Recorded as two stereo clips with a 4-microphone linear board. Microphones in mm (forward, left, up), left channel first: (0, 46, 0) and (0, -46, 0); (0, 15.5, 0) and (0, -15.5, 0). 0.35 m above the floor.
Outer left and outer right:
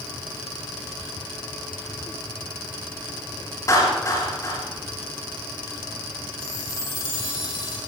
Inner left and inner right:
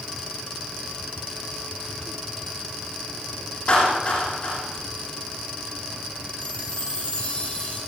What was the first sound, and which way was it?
A clap, 35° left (ahead or behind).